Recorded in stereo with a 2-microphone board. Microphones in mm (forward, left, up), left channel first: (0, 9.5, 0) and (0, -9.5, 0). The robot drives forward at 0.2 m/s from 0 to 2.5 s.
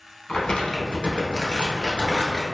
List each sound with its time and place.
0.3 s crumpling: 60° left (ahead or behind), 1.1 m